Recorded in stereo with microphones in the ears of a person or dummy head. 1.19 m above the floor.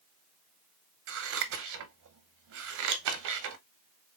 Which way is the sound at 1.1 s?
65° right (ahead or behind).